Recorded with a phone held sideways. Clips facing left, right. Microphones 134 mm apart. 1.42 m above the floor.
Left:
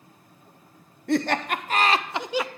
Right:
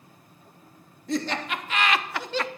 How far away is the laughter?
About 0.8 m.